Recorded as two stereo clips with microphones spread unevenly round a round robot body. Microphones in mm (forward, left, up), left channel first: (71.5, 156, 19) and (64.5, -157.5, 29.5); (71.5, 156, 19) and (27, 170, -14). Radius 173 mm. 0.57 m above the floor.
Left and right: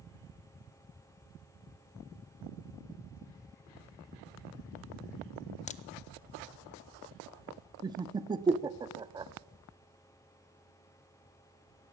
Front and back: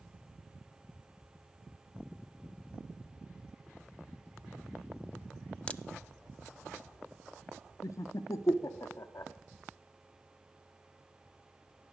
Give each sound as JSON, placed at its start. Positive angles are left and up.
{"t": 5.7, "sound": "a crack", "azimuth_deg": 20, "distance_m": 0.6}
{"t": 7.8, "sound": "laughter", "azimuth_deg": -30, "distance_m": 0.6}